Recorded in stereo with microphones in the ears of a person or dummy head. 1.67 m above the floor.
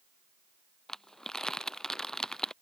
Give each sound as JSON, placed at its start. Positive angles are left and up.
{"t": 0.9, "sound": "crumpling", "side_deg": 5}